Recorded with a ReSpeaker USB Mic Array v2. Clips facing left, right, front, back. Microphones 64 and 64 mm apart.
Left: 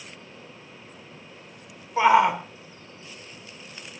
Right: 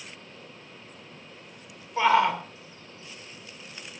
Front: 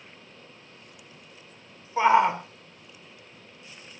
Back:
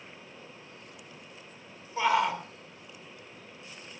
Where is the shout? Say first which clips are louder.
Left 3 dB, front 6 dB; 30° left, 1.5 m.